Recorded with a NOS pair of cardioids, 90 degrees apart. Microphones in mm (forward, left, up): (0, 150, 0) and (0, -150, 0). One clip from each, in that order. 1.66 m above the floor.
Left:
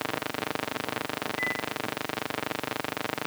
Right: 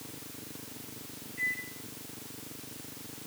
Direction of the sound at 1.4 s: 55° left.